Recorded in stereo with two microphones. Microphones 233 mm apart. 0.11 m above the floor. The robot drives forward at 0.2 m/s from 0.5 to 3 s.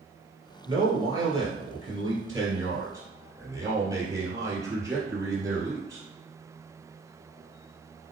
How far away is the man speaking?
About 1.8 m.